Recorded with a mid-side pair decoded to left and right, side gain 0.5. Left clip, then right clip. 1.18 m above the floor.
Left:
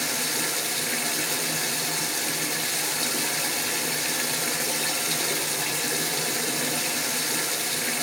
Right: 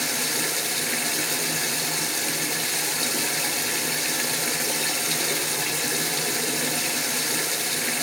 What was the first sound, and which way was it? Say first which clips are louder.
Running water: right 1 dB; 5° right.